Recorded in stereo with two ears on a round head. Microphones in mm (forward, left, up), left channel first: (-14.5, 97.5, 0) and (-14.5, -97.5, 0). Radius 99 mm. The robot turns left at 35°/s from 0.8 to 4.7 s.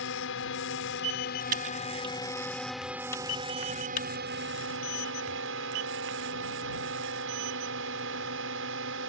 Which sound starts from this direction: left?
A drone, at 0.0 s.